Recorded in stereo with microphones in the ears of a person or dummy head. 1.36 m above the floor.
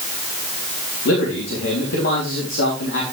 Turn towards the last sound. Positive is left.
turn(degrees=70)  # may be behind; listen again after turning